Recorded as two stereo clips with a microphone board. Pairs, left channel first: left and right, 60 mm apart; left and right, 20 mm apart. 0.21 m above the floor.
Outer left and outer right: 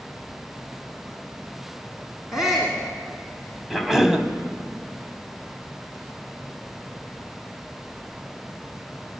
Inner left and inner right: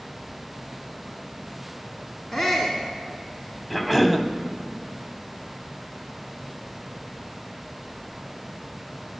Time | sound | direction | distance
2.3 | a shout | 10° right (ahead or behind) | 1.8 m
3.7 | a cough | 5° right (ahead or behind) | 1.0 m